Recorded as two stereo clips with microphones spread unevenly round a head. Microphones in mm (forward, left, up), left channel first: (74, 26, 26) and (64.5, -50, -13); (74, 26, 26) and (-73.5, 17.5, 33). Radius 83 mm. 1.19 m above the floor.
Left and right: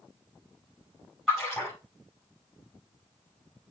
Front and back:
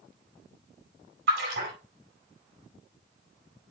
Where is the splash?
175° left, 4.5 m.